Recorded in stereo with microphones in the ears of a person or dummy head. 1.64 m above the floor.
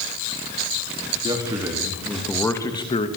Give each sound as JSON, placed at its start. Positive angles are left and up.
{"t": 1.2, "sound": "a man speaking", "side_deg": -20, "distance_m": 3.0}